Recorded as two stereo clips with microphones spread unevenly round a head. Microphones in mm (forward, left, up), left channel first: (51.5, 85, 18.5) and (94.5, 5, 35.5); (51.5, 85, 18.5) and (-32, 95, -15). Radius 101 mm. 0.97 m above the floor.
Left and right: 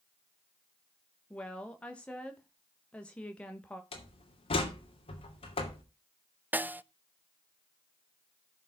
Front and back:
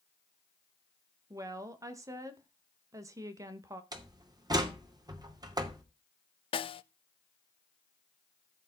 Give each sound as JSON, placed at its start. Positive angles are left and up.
{"t": 1.3, "sound": "a woman speaking", "azimuth_deg": -170, "distance_m": 1.0}
{"t": 3.9, "sound": "a door slam", "azimuth_deg": 135, "distance_m": 2.5}
{"t": 6.5, "sound": "a snare drum", "azimuth_deg": 15, "distance_m": 0.7}